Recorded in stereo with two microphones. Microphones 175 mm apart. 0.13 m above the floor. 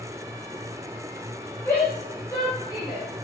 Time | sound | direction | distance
1.6 | a shout | 15° left (ahead or behind) | 3.5 m